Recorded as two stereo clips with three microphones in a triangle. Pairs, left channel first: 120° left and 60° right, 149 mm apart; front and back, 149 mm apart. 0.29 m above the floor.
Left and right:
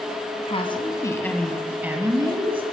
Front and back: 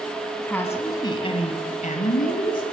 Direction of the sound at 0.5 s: 80° left.